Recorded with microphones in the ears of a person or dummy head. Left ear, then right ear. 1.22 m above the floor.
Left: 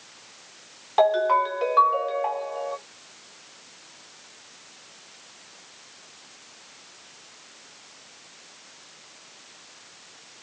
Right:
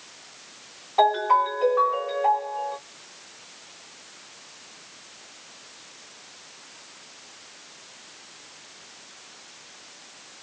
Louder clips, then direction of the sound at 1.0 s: Even; 50° left (ahead or behind).